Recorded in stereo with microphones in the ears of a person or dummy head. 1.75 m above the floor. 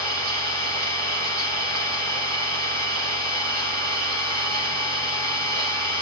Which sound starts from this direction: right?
An engine running, at 0.0 s.